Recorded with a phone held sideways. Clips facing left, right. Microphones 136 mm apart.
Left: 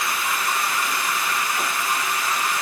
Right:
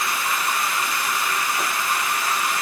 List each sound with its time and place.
Only background noise.